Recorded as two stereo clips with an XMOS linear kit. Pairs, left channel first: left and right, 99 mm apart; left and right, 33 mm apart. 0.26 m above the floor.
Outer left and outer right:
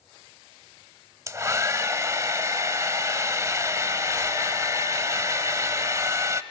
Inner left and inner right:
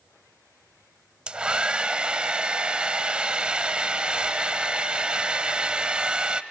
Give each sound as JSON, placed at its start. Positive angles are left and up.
{"t": 1.3, "sound": "a hair dryer", "side_deg": -30, "distance_m": 0.8}